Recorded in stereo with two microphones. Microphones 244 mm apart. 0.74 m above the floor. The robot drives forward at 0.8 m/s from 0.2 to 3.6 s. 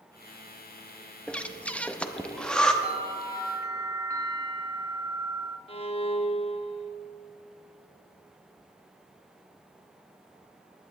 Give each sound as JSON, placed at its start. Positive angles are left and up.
{"t": 1.3, "sound": "breathing", "side_deg": 5, "distance_m": 0.6}
{"t": 2.8, "sound": "a bell", "side_deg": -25, "distance_m": 0.7}
{"t": 5.7, "sound": "a violin", "side_deg": 25, "distance_m": 0.6}